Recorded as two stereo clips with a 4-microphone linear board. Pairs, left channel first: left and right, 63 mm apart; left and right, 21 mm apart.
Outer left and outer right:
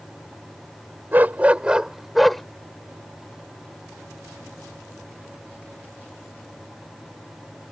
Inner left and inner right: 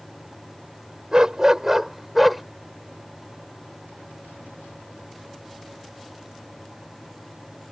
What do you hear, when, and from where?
1.1 s a dog barking: 30° right (ahead or behind); by 2.4 s 5° left (ahead or behind)